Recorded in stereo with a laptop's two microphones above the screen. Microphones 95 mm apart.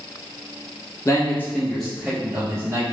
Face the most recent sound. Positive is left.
turn(degrees=-40)  # may be behind; listen again after turning